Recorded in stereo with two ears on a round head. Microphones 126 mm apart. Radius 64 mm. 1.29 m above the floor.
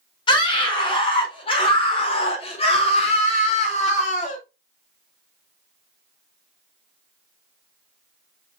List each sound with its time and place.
0.3 s a scream: 35° left (ahead or behind), 4.5 m; by 4.4 s 60° left (ahead or behind), 2.5 m